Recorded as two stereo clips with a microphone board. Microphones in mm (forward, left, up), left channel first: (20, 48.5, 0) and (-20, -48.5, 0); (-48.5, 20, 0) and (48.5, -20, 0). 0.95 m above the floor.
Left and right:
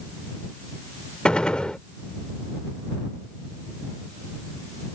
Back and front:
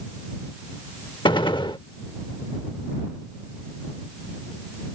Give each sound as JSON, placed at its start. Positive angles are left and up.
{"t": 1.2, "sound": "a gunshot", "azimuth_deg": 145}